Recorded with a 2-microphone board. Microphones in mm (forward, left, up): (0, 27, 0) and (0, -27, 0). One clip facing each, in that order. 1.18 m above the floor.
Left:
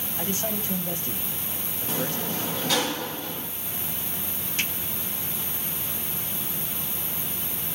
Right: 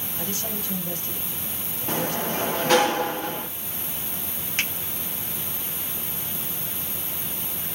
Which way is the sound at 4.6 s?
45° right (ahead or behind).